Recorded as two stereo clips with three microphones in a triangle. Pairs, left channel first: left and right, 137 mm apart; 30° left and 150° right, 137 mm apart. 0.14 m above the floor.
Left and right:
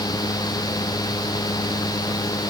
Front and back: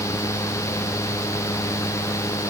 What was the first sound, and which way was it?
Only background noise.